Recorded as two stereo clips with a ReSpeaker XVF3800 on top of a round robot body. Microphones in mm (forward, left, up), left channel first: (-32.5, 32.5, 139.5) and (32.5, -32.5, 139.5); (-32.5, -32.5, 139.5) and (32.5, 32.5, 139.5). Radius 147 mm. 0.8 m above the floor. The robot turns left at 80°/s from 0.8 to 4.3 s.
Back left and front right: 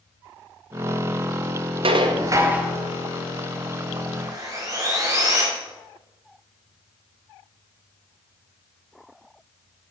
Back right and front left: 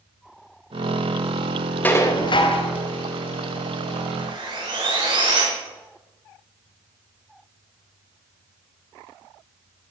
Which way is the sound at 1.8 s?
60° right.